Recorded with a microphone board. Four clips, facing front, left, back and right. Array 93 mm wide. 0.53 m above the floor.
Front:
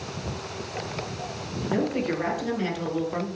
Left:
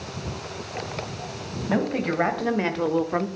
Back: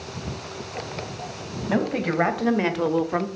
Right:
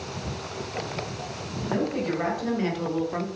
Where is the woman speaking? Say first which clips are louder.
Left 2 dB, back 2 dB; 150° left, 3 m; by 3.3 s 140° left, 0.8 m.